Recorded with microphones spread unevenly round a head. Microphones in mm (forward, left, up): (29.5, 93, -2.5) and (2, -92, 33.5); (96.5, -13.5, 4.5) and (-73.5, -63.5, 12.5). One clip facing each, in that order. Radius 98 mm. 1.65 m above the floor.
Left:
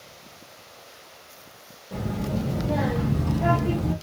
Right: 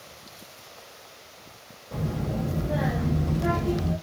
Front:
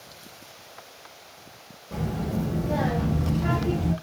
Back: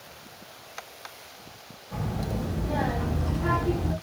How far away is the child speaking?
About 1.0 m.